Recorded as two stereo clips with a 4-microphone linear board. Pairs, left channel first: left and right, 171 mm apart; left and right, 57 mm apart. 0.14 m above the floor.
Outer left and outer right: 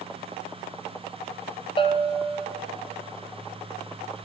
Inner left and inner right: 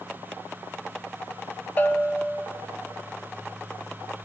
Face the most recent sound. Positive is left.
turn(degrees=30)  # may be behind; listen again after turning